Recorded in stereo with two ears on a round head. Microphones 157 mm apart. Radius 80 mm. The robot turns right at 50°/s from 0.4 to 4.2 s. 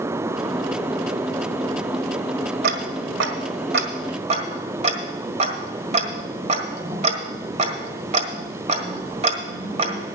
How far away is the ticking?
About 1.5 m.